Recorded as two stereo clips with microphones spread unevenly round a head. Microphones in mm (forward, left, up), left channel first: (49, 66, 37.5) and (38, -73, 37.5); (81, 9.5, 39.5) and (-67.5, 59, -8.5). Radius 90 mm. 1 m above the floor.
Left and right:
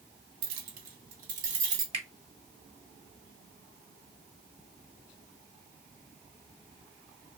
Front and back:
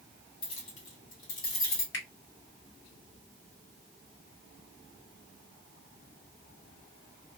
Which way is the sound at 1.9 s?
45° right.